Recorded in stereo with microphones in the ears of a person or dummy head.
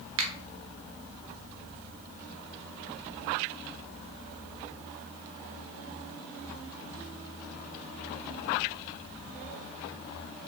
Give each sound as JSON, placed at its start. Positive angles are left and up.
{"t": 0.2, "sound": "a finger snap", "side_deg": -60, "distance_m": 0.5}